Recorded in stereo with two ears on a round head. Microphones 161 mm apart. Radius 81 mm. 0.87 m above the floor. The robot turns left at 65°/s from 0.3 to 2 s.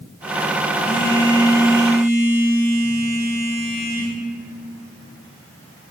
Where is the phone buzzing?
35° right, 3.5 m; by 4.1 s 115° right, 3.5 m.